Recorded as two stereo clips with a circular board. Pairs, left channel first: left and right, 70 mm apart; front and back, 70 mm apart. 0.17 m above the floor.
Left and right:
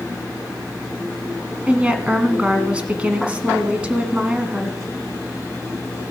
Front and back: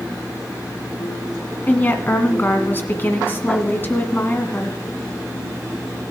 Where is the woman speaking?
30° right, 1.4 m.